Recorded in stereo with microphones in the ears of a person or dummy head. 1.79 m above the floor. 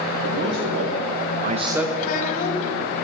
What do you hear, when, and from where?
0.2 s a man speaking: 70° right (ahead or behind), 1.5 m; by 1.9 s 5° left (ahead or behind), 0.7 m
2.0 s a child speaking: 40° left (ahead or behind), 1.1 m